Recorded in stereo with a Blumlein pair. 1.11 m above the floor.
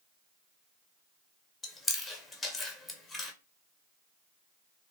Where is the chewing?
10° left, 0.6 m.